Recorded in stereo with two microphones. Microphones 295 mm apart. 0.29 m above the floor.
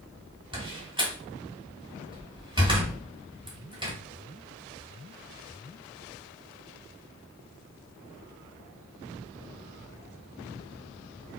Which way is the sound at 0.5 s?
15° right (ahead or behind).